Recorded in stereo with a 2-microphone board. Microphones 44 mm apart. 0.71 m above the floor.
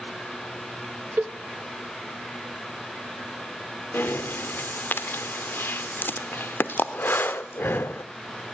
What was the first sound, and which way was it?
A cowbell, 55° right (ahead or behind).